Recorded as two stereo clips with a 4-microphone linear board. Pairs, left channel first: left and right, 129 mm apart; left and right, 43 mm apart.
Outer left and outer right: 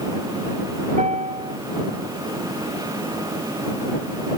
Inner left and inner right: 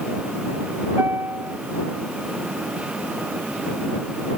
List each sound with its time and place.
1.0 s a piano: 75° right (ahead or behind)